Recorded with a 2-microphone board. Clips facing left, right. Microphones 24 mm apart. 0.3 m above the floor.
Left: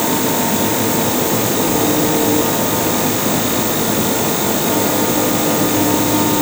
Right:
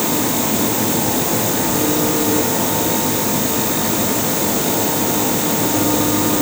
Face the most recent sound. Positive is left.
No sound to turn to.